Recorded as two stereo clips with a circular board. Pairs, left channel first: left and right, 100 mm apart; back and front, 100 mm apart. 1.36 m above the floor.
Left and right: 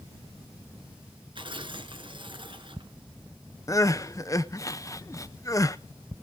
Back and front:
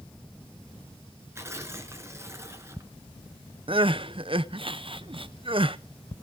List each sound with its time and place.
1.4 s tearing paper: 60° right, 2.5 m
3.7 s crying: 30° left, 0.6 m